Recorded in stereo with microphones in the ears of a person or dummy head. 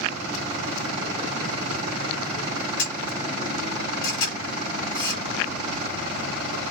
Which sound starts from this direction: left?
A camera shutter, at 2.8 s.